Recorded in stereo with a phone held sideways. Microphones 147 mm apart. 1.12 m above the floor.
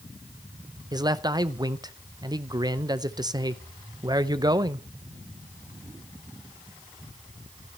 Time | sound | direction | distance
0.9 | a man speaking | 25° right (ahead or behind) | 0.7 m